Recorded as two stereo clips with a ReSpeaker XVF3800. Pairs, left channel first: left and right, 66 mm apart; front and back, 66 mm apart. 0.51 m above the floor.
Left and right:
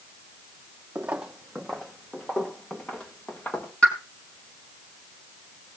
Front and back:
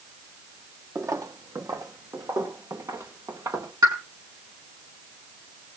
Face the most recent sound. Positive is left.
turn(degrees=165)